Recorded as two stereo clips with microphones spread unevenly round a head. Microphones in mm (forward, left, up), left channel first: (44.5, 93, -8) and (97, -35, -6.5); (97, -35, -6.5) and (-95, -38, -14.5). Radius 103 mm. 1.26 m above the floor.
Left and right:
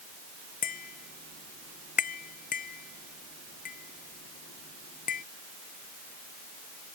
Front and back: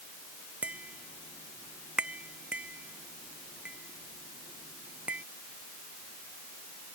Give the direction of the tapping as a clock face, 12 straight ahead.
9 o'clock.